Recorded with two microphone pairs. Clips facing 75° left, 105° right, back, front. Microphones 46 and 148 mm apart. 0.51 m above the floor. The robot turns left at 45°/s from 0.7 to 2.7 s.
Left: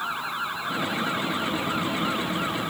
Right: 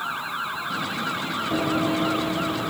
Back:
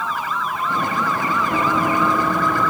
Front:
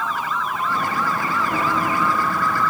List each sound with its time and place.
1.5 s running footsteps: 100° right; by 2.7 s 160° right